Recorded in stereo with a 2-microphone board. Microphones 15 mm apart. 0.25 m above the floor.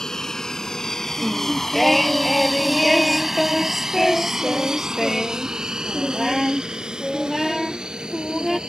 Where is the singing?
5° right (ahead or behind).